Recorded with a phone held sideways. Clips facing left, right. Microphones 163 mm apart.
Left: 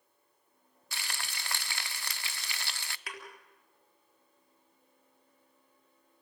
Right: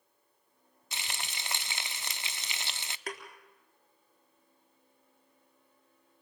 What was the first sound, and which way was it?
Frying, 20° right (ahead or behind).